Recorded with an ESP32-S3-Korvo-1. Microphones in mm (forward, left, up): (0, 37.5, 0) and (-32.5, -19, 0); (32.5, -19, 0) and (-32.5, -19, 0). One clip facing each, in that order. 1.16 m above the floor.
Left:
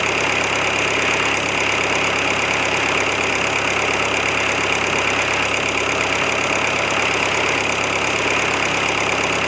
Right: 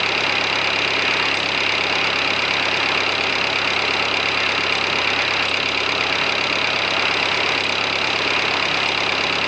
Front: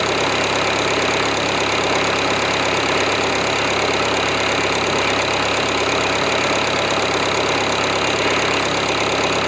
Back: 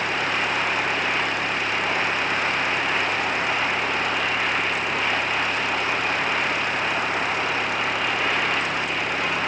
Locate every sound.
0.0 s an engine running: 15° right